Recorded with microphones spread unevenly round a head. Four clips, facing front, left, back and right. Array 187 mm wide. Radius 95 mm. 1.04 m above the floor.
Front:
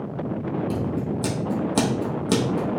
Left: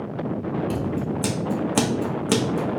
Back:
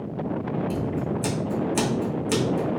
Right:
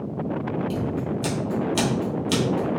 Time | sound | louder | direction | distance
0.7 | scissors | left 1 dB, front 1 dB | 40° left | 1.2 m